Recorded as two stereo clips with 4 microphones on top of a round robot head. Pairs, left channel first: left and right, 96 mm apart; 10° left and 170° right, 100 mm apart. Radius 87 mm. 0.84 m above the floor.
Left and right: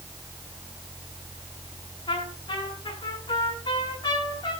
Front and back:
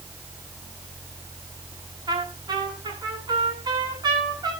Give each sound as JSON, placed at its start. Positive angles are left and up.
{"t": 2.1, "sound": "a trumpet", "azimuth_deg": 145, "distance_m": 8.5}